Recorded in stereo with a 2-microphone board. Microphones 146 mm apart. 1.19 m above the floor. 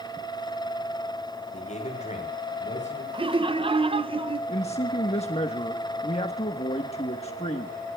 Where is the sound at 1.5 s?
55° left (ahead or behind), 7 m.